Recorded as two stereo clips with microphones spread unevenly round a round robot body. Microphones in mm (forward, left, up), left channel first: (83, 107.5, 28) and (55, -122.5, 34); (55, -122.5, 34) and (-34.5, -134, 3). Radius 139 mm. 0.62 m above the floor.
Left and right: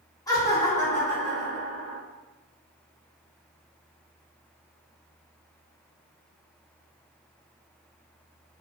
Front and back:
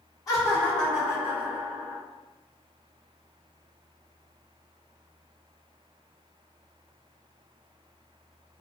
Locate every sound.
0.3 s laughter: 45° left, 0.7 m; by 2.0 s 170° left, 1.1 m